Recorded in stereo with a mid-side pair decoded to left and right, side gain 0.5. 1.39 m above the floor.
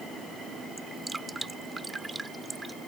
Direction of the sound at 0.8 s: 15° right.